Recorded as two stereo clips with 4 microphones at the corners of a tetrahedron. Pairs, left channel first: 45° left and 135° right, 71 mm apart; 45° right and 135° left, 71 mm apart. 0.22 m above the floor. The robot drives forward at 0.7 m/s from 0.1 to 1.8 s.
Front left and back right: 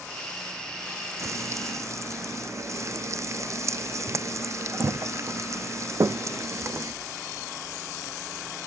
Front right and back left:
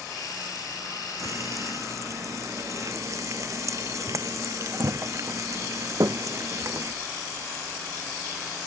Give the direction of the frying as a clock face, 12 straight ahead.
6 o'clock.